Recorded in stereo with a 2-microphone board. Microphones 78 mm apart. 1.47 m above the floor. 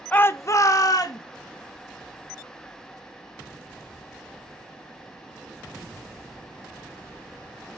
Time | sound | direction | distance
0.1 | a shout | 20° left (ahead or behind) | 0.8 m